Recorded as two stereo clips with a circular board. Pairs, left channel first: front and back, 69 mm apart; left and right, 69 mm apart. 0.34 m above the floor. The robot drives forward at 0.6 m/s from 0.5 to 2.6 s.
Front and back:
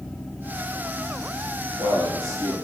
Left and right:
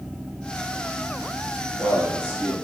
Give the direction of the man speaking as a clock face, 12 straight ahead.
7 o'clock.